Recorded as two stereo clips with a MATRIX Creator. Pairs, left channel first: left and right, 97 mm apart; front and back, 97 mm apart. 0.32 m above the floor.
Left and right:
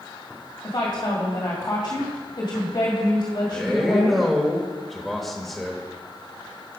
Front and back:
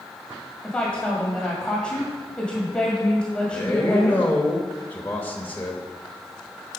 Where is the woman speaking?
75° left, 1.9 m.